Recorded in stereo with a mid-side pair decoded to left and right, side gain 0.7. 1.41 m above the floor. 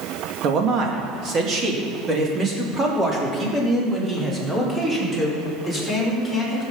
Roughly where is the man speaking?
Ahead right.